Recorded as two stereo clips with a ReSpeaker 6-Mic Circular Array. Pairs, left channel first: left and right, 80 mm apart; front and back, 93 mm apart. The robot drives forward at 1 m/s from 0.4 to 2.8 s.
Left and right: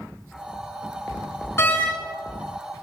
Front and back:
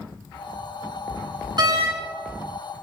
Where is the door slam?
145° left, 4 m.